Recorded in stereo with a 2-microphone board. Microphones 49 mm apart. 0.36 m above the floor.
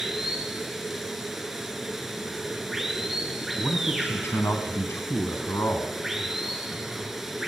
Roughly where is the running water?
Centre.